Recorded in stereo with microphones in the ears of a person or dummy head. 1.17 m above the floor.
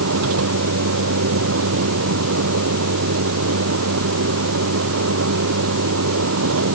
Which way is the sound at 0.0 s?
80° right.